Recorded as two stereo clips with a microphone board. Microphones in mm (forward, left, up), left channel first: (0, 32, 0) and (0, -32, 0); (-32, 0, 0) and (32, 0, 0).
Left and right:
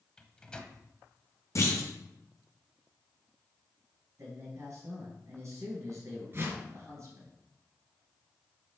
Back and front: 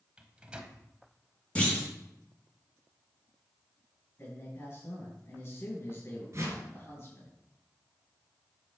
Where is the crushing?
No crushing in this recording.